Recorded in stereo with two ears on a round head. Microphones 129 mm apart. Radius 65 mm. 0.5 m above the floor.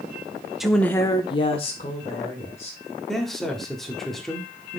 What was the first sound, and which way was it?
A woman speaking, centre (ahead or behind).